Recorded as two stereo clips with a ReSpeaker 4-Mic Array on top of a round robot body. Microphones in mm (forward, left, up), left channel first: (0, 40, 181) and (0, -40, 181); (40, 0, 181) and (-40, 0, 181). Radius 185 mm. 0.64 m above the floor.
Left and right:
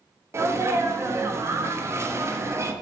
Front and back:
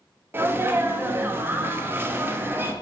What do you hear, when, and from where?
0.3 s a sneeze: 130° right, 0.8 m